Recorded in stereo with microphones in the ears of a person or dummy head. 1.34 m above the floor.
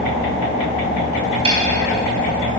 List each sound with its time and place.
1.4 s a snare drum: 30° right (ahead or behind), 1.2 m